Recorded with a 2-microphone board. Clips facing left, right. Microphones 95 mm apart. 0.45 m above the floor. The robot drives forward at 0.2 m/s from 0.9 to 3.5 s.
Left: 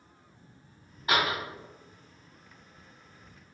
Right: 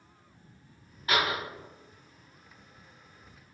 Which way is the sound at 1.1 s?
25° left (ahead or behind).